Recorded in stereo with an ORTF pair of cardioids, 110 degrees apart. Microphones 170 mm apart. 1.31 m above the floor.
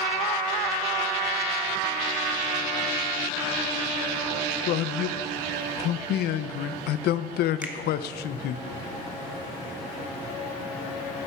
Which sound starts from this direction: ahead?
A finger snap, at 7.6 s.